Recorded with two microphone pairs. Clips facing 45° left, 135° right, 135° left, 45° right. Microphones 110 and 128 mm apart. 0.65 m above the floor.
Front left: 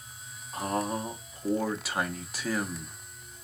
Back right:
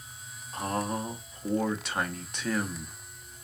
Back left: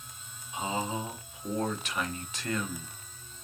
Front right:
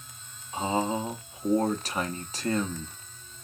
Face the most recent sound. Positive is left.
turn(degrees=-40)